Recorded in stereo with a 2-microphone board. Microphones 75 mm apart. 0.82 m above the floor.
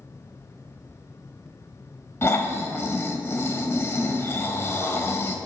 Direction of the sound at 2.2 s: 35° left (ahead or behind).